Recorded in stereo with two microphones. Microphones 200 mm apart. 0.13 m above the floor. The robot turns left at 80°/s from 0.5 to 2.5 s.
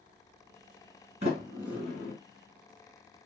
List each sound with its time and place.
1.2 s a sliding door: 35° right (ahead or behind), 1.8 m; by 2.1 s 15° left (ahead or behind), 1.8 m